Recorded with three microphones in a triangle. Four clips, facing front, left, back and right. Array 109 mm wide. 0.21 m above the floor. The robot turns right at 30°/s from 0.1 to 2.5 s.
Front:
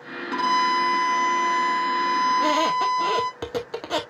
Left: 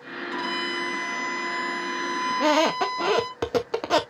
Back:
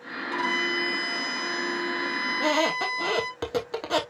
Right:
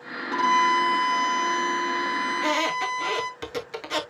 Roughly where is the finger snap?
No finger snap in this recording.